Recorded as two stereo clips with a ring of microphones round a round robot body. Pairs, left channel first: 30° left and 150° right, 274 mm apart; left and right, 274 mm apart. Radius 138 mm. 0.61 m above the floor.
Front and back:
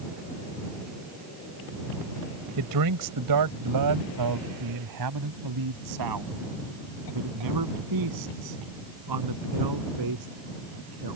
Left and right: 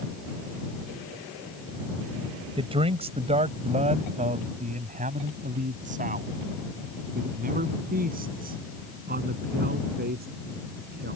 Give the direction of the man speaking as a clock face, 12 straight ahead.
5 o'clock.